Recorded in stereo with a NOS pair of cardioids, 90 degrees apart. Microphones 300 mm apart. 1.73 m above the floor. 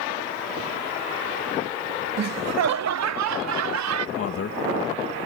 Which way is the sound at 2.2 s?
60° right.